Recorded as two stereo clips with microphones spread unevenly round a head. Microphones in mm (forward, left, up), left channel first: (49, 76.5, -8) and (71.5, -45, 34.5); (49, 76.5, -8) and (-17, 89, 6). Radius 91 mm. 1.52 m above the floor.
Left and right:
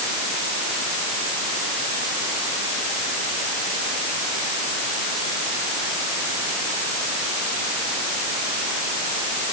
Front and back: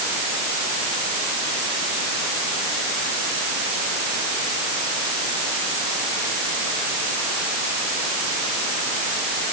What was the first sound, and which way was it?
Only background noise.